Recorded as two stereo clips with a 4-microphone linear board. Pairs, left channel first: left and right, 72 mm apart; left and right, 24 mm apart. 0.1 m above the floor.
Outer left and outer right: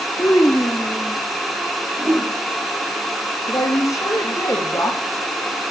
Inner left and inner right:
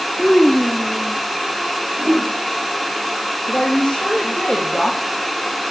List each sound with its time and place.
0.2 s a child speaking: 45° left (ahead or behind), 1.5 m; by 1.2 s 15° left (ahead or behind), 1.4 m
2.0 s a whoosh: 35° right (ahead or behind), 3 m
3.5 s a woman speaking: 45° left (ahead or behind), 4.5 m